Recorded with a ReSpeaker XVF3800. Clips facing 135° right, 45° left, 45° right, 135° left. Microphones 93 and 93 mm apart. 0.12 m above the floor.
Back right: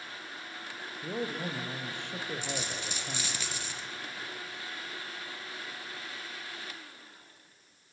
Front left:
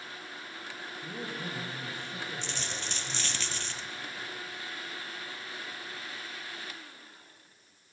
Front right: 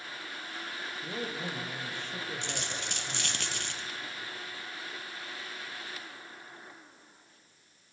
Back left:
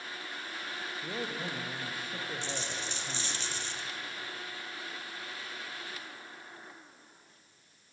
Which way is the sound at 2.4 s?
55° right.